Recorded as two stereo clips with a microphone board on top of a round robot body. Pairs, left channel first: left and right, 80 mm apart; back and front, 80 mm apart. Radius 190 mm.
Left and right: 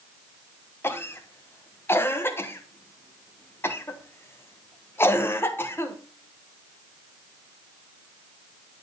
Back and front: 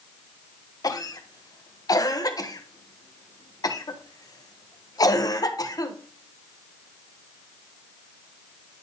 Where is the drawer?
No drawer in this recording.